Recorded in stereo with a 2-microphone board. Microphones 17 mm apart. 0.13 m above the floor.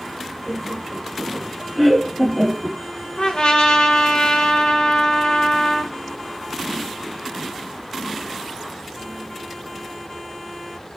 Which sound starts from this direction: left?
A trumpet, at 3.2 s.